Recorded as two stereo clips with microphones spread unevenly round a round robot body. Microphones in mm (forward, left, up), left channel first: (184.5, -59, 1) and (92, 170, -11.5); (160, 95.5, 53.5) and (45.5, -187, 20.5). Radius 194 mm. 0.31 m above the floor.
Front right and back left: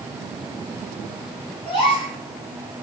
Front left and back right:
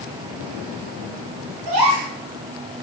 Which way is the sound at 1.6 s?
150° right.